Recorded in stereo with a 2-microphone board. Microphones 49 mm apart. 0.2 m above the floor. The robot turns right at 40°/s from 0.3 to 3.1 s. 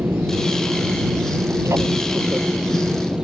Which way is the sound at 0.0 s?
50° right (ahead or behind).